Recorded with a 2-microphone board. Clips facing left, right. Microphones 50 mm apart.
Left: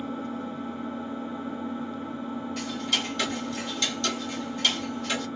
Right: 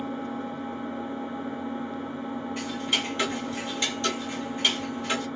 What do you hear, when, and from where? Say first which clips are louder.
0.0 s an engine running: right 1 dB; 45° right (ahead or behind), 1.3 m
2.6 s ticking: right 1 dB; 20° right (ahead or behind), 0.9 m